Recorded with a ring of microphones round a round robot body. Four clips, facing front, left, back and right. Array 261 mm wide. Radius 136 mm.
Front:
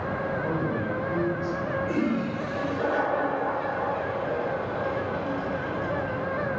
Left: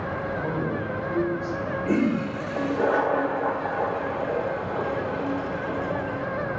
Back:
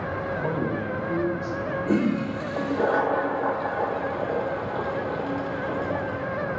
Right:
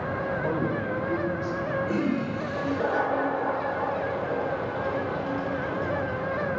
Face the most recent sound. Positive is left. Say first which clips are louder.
# left 7 dB, back 5 dB
turn(degrees=140)